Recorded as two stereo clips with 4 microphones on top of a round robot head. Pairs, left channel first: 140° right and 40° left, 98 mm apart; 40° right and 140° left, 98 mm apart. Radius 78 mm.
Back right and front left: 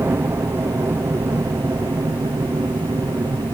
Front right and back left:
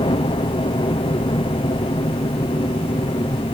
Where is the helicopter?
20° right; by 3.5 s 5° right.